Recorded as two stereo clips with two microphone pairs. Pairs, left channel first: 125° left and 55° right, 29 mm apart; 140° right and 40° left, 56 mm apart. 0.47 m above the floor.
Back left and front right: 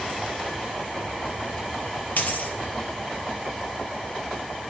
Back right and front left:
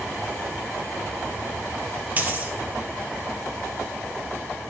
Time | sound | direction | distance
2.2 | a dropped coin | 95° left | 2.5 m